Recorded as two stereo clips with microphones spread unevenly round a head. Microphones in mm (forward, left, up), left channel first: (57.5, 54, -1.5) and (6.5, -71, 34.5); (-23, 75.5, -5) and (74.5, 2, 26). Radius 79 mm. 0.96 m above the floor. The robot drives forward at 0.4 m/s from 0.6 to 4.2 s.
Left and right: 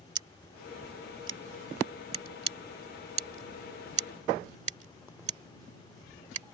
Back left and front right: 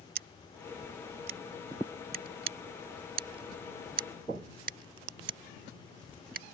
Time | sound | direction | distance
0.1 | scissors | 55° right | ?